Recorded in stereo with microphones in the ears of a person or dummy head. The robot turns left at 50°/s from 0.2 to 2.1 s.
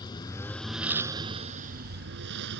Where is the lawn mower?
20° left; by 2.6 s 75° right.